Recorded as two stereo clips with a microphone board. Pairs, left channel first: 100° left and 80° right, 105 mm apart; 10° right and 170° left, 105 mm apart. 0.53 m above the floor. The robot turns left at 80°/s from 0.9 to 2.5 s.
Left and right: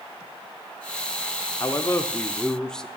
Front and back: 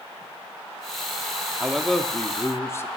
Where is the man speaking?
95° left, 0.7 m; by 2.9 s 25° left, 0.7 m.